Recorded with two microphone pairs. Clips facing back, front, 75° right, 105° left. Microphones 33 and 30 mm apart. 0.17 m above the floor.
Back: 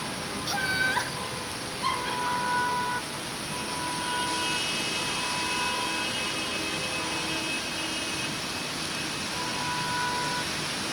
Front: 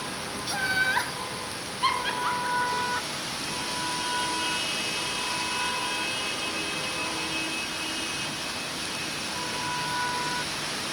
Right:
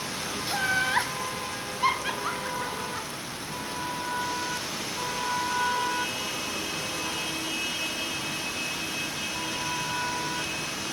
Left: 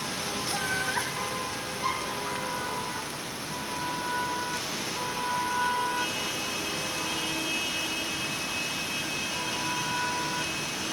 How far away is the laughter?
About 1.0 m.